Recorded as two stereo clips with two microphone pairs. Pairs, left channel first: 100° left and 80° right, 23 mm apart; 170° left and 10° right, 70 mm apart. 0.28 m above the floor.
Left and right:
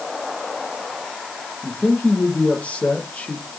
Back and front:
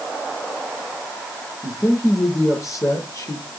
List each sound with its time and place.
1.6 s a man speaking: 130° left, 7.5 m